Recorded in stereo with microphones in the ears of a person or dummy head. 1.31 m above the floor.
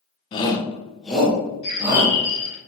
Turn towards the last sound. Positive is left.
turn(degrees=35)  # may be behind; listen again after turning